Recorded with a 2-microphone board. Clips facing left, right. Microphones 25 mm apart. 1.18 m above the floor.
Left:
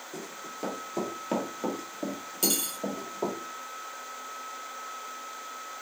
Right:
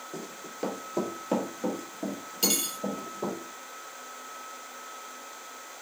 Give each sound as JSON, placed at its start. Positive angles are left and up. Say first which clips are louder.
{"t": 0.1, "sound": "running footsteps", "louder": "left 2 dB", "side_deg": -25, "distance_m": 1.2}
{"t": 2.4, "sound": "cutlery clinking", "louder": "right 1 dB", "side_deg": -25, "distance_m": 1.0}